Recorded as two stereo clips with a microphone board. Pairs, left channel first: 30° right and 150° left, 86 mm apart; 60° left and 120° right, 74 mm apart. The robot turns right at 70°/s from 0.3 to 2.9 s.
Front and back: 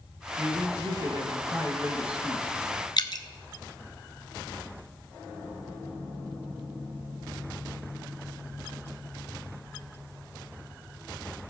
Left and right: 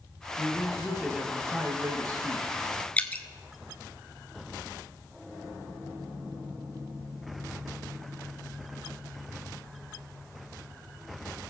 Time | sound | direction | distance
0.4 | a man speaking | 105° left | 2 m
3.0 | dripping | 5° right | 0.7 m